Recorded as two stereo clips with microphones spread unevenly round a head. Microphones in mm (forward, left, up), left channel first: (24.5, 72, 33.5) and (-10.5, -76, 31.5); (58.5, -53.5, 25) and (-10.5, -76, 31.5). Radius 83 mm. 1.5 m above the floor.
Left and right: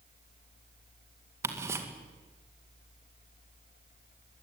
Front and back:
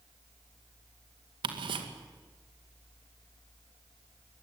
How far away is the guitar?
I don't hear a guitar.